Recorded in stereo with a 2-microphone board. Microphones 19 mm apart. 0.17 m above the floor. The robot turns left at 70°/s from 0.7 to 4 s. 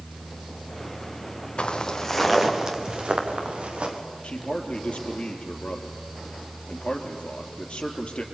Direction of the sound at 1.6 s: 55° left (ahead or behind).